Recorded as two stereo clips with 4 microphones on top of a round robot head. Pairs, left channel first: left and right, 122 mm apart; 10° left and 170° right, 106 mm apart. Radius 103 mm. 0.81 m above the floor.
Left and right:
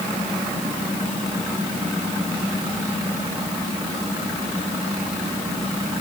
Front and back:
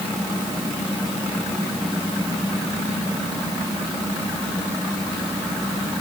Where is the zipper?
I don't hear a zipper.